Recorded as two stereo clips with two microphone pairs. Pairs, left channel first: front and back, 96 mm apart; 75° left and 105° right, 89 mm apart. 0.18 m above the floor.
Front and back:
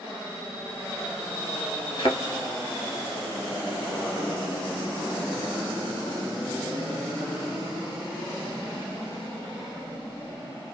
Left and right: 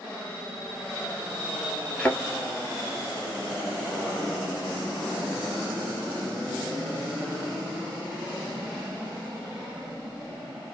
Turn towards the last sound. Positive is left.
turn(degrees=5)